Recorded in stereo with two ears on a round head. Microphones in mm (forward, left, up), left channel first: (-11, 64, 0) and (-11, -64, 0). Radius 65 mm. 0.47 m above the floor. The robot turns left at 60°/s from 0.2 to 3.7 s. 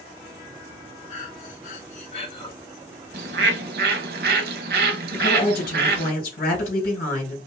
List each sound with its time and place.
1.1 s breathing: 115° left, 0.9 m; by 2.5 s 30° left, 0.9 m
3.1 s a bird: 65° right, 0.9 m; by 6.1 s 100° right, 0.9 m
5.1 s a woman speaking: 70° left (ahead or behind), 3 m